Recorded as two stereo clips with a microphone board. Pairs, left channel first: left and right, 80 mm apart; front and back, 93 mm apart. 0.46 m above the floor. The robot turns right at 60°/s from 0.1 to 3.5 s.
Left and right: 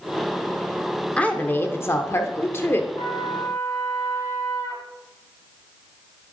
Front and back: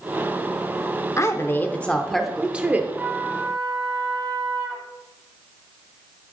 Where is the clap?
No clap in this recording.